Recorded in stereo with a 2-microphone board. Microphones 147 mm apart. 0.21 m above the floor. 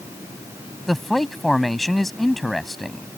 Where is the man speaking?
Centre (ahead or behind).